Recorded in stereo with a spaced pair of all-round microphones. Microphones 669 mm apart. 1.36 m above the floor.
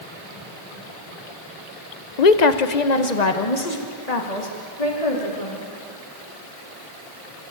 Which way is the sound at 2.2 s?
80° left.